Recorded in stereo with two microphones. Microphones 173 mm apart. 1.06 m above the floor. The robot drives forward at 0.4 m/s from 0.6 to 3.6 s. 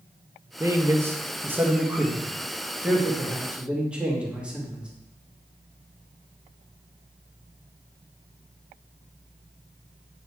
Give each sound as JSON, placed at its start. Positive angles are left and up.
{"t": 0.6, "sound": "a man speaking", "side_deg": -20, "distance_m": 0.7}